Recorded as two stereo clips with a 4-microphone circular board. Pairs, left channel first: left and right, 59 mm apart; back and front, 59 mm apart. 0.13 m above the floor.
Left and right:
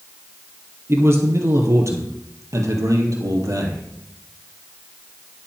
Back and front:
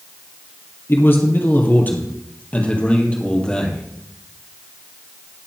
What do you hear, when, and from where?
0.9 s a man speaking: 130° right, 3 m; by 3.8 s 105° right, 3.5 m